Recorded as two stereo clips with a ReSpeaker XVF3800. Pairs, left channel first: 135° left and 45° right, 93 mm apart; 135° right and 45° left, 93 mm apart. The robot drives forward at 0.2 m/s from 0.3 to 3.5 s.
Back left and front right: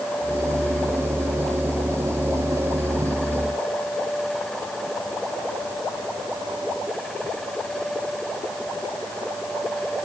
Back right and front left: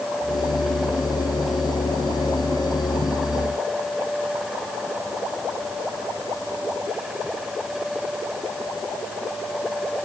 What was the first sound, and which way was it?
Only background noise.